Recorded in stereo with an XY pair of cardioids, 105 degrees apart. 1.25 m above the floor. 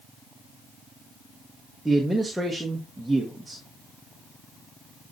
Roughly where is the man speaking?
Ahead.